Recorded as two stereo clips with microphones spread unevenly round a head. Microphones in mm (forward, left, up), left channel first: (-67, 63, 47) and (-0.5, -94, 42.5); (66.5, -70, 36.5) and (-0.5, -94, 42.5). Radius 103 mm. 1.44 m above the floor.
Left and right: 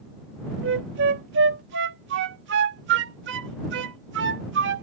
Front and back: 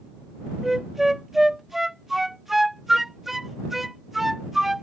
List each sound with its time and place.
0.6 s a flute: 75° right